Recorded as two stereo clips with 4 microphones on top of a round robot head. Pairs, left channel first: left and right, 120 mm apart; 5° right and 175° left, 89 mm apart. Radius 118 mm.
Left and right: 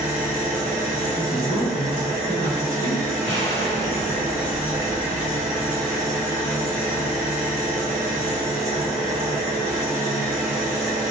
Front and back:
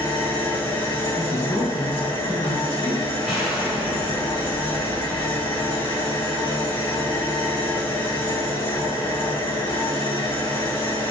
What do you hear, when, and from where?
0.0 s an engine running: 25° right, 1.4 m
1.1 s a woman speaking: 25° left, 1.7 m
3.2 s an explosion: 90° left, 1.8 m